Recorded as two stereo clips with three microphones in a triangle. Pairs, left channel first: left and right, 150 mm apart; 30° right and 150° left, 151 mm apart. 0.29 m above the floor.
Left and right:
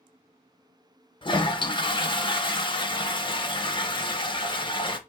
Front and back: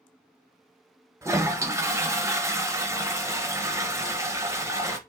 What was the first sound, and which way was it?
A toilet flushing, 100° left.